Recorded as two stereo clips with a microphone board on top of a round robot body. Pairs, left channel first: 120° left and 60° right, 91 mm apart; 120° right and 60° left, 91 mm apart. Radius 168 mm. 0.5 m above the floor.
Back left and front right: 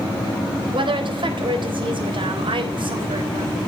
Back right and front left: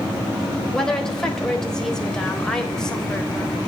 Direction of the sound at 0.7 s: 40° right.